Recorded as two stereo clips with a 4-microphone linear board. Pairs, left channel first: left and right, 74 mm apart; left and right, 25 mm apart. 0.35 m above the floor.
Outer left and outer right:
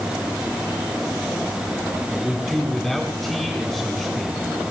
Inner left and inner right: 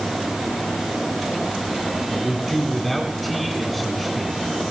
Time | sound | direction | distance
2.1 | a man speaking | centre (ahead or behind) | 3 m